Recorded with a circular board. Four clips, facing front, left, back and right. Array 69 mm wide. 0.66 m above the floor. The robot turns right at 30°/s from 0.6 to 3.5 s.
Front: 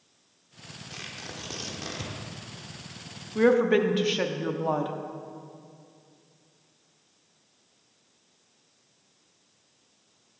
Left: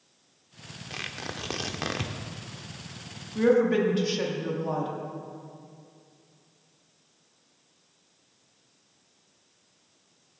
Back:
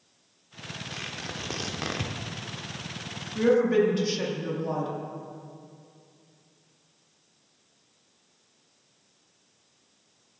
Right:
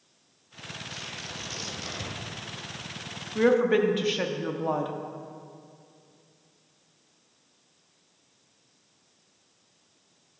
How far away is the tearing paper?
About 0.7 m.